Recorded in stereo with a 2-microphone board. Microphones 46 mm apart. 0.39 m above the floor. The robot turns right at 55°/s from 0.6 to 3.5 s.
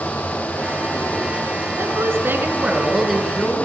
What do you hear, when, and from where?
1.8 s a woman speaking: 75° right, 6 m; by 3.6 s 20° left, 6 m